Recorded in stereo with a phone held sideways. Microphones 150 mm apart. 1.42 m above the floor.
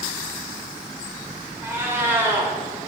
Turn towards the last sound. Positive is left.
turn(degrees=-15)  # may be behind; listen again after turning